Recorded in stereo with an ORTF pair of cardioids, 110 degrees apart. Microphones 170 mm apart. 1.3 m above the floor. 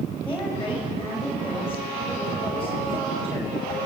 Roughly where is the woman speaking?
Ahead.